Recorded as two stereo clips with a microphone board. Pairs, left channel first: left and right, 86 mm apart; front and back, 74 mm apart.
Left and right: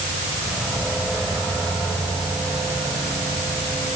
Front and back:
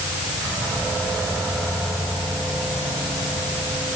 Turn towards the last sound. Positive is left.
No sound to turn to.